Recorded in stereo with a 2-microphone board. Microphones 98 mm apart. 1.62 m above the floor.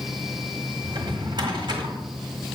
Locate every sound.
0.8 s a drawer: 45° right (ahead or behind), 1.6 m